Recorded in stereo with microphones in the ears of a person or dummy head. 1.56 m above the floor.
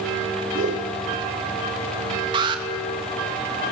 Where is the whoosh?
40° right (ahead or behind), 2 m.